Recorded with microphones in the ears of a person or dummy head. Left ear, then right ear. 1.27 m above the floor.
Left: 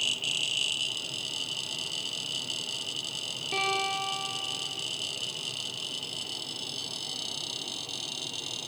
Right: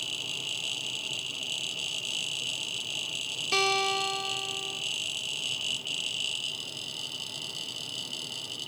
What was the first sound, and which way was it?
A guitar, 55° right (ahead or behind).